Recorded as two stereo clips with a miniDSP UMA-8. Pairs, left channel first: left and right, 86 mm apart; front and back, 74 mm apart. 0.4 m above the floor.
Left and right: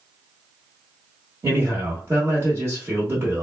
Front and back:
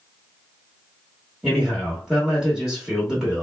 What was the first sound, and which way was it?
A man speaking, 100° right.